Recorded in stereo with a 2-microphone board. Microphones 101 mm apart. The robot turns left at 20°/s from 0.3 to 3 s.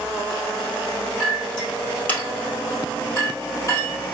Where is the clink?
Centre (ahead or behind), 2 m; by 4.1 s 35° left (ahead or behind), 2 m.